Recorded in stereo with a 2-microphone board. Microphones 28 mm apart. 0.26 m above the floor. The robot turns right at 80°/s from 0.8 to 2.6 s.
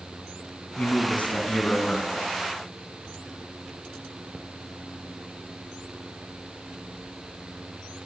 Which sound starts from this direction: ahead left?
A man speaking, at 0.8 s.